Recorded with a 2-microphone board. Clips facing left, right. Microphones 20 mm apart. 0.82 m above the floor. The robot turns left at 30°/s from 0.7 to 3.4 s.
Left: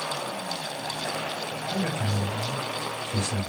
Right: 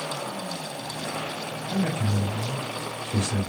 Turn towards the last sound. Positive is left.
turn(degrees=-20)